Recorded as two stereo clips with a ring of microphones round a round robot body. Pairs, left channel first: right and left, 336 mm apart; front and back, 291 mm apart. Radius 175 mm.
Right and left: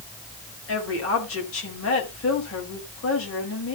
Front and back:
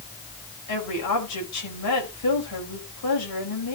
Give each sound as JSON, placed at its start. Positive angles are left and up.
{"t": 0.7, "sound": "a woman speaking", "azimuth_deg": -40, "distance_m": 4.5}